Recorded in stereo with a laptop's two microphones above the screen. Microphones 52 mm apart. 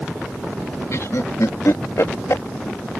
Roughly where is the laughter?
Left.